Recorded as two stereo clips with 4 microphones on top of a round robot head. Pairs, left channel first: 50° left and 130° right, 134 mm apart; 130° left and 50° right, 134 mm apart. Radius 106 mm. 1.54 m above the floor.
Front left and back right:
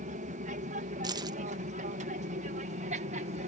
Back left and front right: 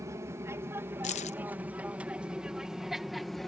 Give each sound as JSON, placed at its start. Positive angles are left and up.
{"t": 0.0, "sound": "an aircraft", "azimuth_deg": -115}
{"t": 1.0, "sound": "keys jangling", "azimuth_deg": 170}